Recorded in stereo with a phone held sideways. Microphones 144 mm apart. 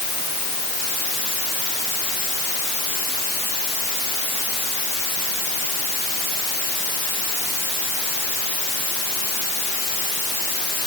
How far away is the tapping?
I don't hear tapping.